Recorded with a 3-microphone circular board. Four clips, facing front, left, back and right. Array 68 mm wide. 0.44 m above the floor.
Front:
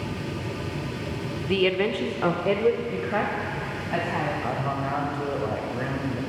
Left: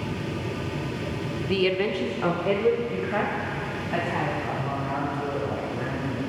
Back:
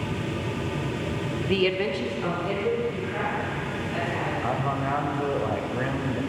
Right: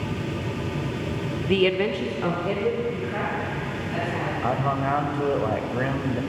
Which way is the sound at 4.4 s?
95° right.